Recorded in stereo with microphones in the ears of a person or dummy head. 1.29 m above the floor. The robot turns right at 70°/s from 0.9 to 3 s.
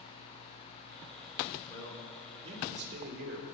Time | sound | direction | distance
1.7 | a man speaking | 155° left | 2 m